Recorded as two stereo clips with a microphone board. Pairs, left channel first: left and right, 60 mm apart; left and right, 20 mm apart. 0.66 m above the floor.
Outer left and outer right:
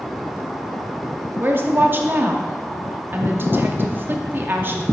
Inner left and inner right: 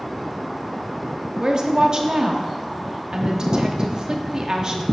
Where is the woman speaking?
35° right (ahead or behind), 0.8 m.